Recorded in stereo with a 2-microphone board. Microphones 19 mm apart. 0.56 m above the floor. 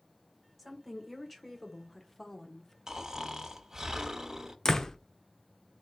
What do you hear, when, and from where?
0.6 s a woman speaking: centre (ahead or behind), 1.8 m; by 2.8 s 20° left (ahead or behind), 0.9 m
2.9 s snoring: 30° right (ahead or behind), 0.8 m
4.7 s a door slam: 30° left (ahead or behind), 0.7 m